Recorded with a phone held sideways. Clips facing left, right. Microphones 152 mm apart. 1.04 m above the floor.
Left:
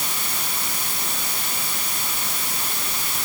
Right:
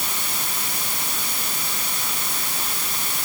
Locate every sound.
Only background noise.